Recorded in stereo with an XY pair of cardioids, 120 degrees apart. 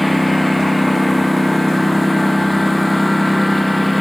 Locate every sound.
0.0 s a lawn mower: 5° left